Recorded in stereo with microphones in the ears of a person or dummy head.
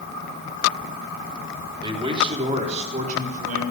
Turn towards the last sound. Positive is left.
turn(degrees=-50)  # may be behind; listen again after turning